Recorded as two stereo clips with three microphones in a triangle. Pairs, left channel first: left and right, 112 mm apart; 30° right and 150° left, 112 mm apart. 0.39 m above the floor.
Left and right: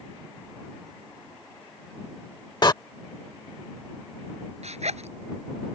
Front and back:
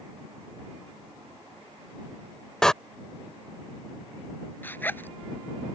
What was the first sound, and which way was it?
A door slam, 50° left.